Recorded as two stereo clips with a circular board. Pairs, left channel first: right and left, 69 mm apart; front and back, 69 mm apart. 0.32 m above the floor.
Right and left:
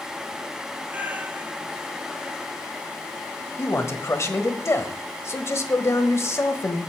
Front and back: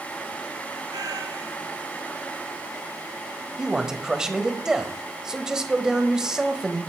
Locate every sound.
0.9 s a cat meowing: 155° left, 1.1 m
3.6 s a man speaking: 105° right, 1.3 m